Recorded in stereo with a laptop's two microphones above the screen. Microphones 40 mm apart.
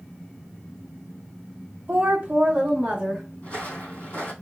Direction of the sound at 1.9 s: 40° right (ahead or behind).